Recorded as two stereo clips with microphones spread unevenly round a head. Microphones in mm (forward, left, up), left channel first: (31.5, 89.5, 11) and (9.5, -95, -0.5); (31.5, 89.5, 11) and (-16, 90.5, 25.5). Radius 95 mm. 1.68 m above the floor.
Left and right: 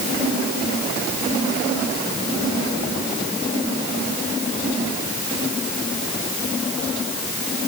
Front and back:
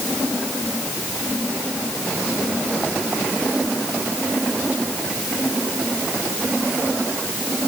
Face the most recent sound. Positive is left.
No sound to turn to.